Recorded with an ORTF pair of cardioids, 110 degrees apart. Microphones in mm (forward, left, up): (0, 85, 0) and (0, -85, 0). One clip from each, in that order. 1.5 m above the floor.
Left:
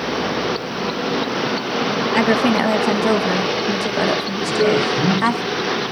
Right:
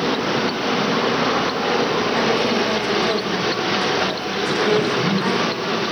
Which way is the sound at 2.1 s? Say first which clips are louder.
Left 5 dB; 60° left.